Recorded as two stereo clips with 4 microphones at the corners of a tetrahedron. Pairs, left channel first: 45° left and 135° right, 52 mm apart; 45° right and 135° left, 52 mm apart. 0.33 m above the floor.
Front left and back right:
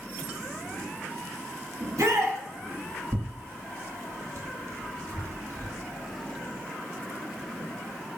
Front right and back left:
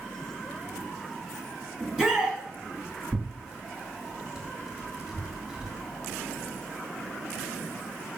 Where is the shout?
125° right, 2.5 m.